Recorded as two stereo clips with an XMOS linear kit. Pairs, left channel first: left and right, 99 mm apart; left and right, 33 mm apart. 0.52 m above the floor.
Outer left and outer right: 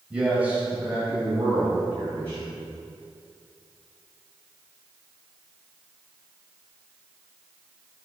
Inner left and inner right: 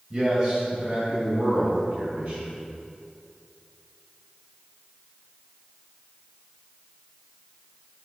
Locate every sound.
0.1 s a man speaking: 10° right (ahead or behind), 2.5 m; by 2.5 s 30° right (ahead or behind), 5 m